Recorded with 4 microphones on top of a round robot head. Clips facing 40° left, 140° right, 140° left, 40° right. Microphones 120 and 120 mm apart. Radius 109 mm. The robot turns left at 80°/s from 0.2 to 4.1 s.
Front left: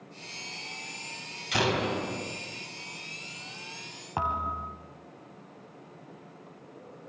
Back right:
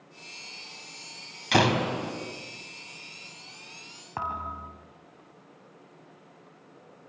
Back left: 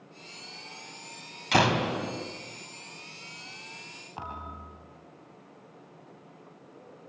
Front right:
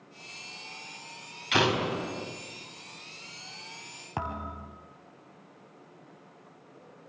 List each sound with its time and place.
1.5 s a door slam: 170° right, 3.5 m; by 2.1 s 145° left, 3.5 m
4.2 s a thud: 40° right, 3 m